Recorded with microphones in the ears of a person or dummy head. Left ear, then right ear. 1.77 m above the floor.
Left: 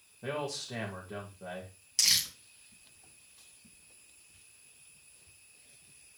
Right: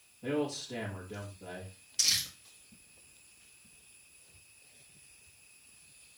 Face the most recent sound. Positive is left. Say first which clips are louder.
# left 2 dB
turn(degrees=45)  # may be behind; listen again after turning